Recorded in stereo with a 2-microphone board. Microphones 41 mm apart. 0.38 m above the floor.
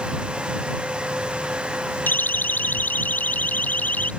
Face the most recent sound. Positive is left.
turn(degrees=40)  # may be behind; listen again after turning